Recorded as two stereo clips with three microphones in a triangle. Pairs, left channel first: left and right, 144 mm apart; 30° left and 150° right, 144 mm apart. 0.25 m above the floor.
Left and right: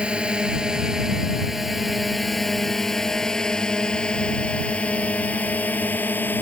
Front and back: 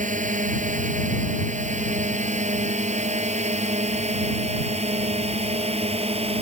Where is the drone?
175° right; by 6.4 s 165° left.